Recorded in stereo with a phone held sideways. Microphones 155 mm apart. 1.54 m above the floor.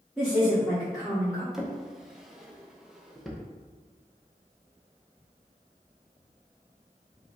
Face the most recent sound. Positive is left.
turn(degrees=0)  # may be behind; listen again after turning